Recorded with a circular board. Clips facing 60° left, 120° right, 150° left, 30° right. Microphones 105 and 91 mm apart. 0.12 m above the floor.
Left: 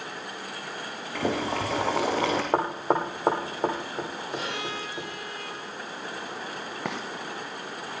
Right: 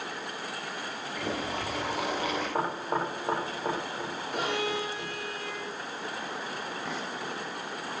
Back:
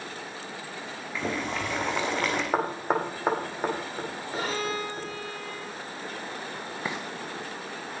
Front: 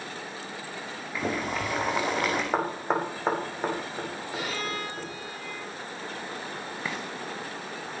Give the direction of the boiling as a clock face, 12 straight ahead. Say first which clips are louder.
Left 6 dB, front 1 dB; 10 o'clock.